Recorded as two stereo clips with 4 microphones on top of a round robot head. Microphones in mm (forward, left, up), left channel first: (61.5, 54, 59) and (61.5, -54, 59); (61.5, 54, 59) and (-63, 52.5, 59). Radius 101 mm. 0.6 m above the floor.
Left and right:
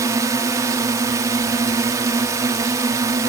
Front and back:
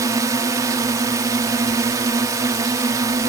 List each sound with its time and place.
0.0 s a drone: 130° right